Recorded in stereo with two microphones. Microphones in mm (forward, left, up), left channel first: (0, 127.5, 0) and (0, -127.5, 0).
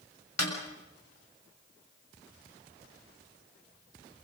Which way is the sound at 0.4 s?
90° left.